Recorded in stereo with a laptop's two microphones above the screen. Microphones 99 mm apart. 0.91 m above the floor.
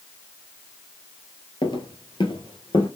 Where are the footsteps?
50° left (ahead or behind), 1.2 m.